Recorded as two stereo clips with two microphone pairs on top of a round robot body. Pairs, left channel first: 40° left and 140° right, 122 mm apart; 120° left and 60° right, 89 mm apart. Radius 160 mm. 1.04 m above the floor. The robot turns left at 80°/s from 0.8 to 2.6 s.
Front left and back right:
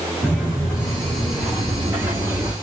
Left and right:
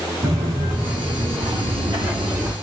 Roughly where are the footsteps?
Ahead right.